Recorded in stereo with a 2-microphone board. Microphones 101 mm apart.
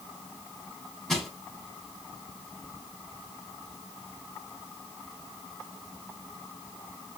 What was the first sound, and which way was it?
Crushing, 5° left (ahead or behind).